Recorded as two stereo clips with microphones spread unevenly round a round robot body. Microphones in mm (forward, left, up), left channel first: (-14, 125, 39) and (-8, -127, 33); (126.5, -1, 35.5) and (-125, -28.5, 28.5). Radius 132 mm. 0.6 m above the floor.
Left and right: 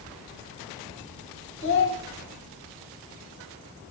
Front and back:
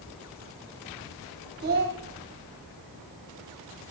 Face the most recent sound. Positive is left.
turn(degrees=130)